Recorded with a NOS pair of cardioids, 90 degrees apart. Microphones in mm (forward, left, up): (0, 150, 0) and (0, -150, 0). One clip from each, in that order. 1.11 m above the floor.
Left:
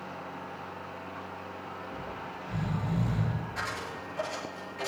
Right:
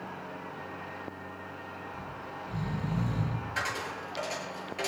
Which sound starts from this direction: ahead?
Snoring, at 1.9 s.